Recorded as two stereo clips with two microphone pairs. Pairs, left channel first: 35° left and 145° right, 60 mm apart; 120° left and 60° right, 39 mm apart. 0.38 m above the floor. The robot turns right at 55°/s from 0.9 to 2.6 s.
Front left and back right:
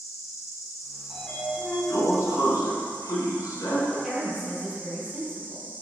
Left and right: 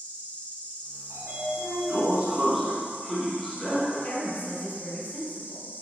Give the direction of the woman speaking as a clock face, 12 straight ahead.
7 o'clock.